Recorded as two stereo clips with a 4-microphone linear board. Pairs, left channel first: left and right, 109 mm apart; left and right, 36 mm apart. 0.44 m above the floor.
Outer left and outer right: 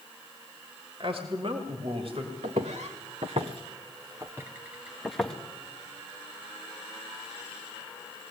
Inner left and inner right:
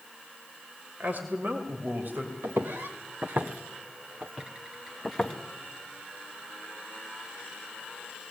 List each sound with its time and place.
1.0 s a man speaking: 55° right (ahead or behind), 2 m
2.4 s footsteps: 80° right, 2.5 m; by 5.4 s 5° left (ahead or behind), 2 m